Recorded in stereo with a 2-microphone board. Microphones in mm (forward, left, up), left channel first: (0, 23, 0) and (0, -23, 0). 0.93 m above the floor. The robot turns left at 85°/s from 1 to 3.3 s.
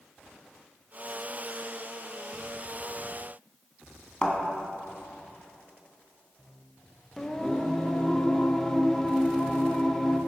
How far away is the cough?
No cough in this recording.